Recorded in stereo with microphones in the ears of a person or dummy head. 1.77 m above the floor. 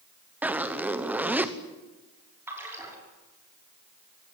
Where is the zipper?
10° right (ahead or behind), 1.1 m.